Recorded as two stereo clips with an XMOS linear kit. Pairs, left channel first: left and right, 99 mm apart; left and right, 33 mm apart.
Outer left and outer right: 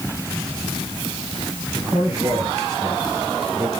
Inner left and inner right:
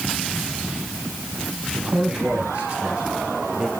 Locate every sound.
1.8 s a man speaking: 30° right (ahead or behind), 5.5 m; by 3.7 s 20° right (ahead or behind), 4.5 m